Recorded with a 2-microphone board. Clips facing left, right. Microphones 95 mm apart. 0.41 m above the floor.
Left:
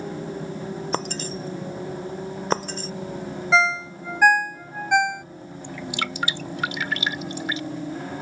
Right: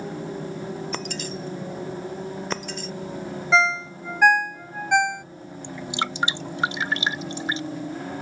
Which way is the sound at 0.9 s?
35° left (ahead or behind).